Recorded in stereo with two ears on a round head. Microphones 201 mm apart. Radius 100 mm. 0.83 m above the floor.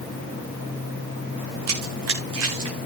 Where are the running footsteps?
70° right (ahead or behind), 3.5 m.